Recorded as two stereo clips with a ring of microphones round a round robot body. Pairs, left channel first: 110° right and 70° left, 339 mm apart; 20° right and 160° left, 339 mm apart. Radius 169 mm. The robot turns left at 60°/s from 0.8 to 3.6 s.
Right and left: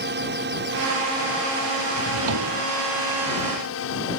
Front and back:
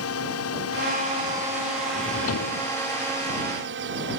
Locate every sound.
0.0 s a drone: 15° left; by 4.2 s 155° right
1.9 s a drawer: 50° left; by 2.6 s 10° left